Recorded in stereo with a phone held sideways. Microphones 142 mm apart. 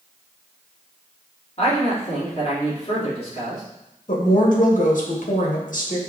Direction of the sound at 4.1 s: 65° left (ahead or behind).